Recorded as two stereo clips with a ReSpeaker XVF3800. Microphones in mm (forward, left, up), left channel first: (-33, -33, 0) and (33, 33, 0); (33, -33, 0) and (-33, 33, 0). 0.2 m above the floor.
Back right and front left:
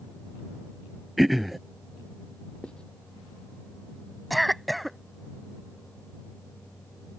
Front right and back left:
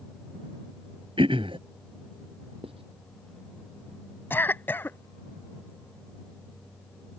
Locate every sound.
1.2 s throat clearing: 135° left
2.6 s writing: 145° left
4.3 s a cough: 45° right